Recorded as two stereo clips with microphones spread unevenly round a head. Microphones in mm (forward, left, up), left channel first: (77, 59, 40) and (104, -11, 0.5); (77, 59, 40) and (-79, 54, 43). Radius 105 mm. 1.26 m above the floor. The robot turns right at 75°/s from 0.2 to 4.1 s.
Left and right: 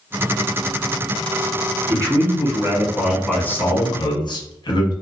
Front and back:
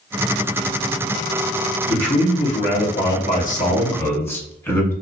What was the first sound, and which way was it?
A man speaking, 90° right.